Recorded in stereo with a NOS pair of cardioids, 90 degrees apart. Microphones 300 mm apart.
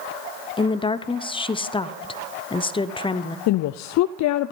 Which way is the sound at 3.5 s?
70° left.